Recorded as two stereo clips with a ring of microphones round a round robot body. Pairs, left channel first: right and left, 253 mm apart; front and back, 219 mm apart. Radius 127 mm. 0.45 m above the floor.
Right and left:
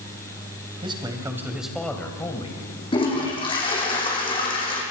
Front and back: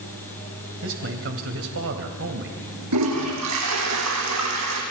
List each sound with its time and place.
0.8 s a man speaking: 160° left, 3 m; by 2.6 s 155° right, 2.5 m
2.9 s a toilet flushing: 160° right, 6 m